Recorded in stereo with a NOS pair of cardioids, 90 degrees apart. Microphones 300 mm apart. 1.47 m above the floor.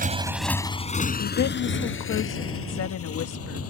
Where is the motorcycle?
30° right; by 3.7 s 50° left.